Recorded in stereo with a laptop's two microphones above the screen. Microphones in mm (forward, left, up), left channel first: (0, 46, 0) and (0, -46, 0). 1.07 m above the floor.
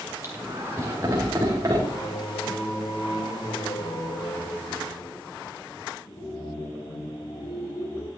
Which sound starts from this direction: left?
Singing, at 1.9 s.